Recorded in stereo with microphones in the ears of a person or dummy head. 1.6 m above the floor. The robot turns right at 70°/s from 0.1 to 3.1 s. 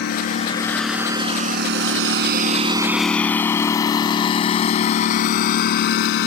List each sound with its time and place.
0.0 s a lawn mower: 55° left (ahead or behind); by 6.3 s 65° left (ahead or behind)